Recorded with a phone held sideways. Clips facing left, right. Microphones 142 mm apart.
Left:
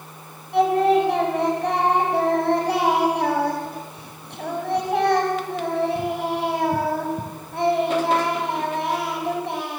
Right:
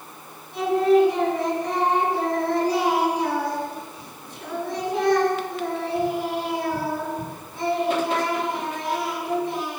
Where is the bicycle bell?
No bicycle bell in this recording.